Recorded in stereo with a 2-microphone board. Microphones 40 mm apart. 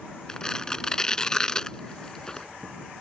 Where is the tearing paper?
20° left (ahead or behind).